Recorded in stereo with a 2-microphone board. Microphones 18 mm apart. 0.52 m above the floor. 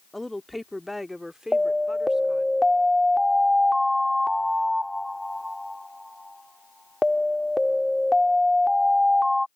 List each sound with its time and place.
0.1 s a woman speaking: 10° left (ahead or behind); by 2.5 s 55° right (ahead or behind)
1.5 s an alarm: 20° right (ahead or behind)